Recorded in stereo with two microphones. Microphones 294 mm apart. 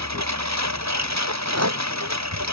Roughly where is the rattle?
Right.